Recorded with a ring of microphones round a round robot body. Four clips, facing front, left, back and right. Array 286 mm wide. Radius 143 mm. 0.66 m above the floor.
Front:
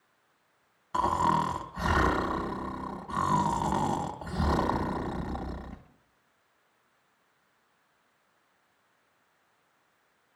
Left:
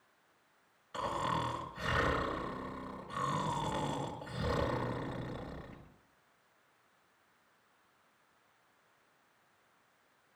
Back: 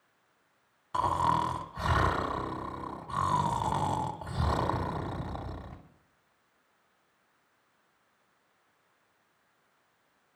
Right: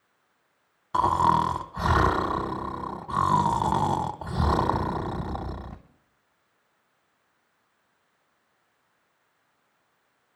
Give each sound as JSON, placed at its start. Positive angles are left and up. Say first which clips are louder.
{"t": 0.9, "sound": "snoring", "louder": "right 14 dB, front 2 dB", "azimuth_deg": -85, "distance_m": 1.0}